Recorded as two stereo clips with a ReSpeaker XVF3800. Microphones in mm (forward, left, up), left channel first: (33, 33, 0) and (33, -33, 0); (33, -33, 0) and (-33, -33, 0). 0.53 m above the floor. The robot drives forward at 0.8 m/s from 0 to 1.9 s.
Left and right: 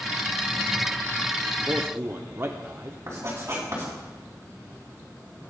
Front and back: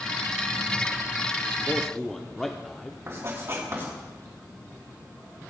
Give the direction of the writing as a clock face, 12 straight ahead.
5 o'clock.